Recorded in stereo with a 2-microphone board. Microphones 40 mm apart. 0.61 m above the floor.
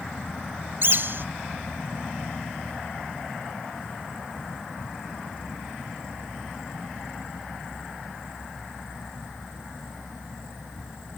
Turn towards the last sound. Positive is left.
turn(degrees=-65)  # may be behind; listen again after turning